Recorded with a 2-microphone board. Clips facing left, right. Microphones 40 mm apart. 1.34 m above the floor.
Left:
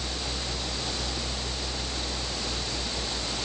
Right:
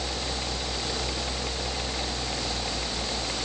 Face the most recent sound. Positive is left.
No sound to turn to.